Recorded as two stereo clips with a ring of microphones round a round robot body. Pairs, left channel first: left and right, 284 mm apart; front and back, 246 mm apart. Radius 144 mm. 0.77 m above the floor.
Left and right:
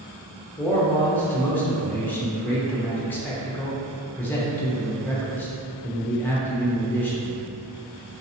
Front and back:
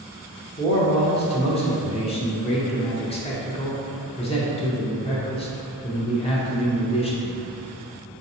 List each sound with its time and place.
0.6 s a man speaking: 15° left, 0.7 m